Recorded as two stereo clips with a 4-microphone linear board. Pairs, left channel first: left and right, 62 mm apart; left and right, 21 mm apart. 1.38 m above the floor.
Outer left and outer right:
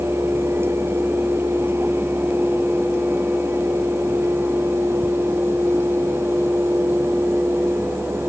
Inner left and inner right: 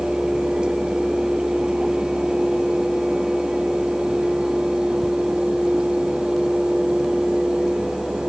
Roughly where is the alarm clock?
I don't hear an alarm clock.